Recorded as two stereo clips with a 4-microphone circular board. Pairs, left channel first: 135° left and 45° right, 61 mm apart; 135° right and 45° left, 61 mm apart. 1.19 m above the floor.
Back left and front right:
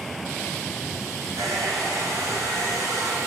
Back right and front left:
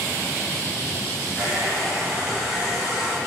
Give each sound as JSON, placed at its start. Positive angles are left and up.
{"t": 1.4, "sound": "a hair dryer", "azimuth_deg": -35, "distance_m": 3.5}